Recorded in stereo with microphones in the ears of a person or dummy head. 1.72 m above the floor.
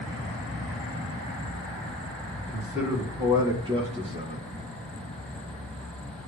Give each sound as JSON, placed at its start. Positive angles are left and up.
{"t": 2.4, "sound": "a man speaking", "side_deg": 0, "distance_m": 2.5}